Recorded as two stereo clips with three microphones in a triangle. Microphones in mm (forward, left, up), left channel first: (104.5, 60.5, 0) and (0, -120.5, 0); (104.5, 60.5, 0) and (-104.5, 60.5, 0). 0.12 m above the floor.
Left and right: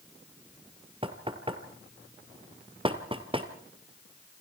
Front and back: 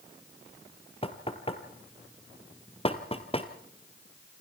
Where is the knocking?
60° right, 1.7 m.